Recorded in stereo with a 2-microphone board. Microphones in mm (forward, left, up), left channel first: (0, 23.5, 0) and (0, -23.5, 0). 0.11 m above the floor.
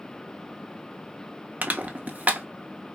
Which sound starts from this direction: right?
Crushing, at 1.6 s.